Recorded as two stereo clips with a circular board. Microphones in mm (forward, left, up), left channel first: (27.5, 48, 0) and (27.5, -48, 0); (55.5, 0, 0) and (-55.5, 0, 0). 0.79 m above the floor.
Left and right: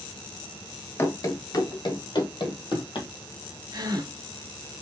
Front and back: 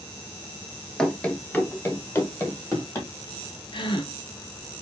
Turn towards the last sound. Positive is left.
turn(degrees=-45)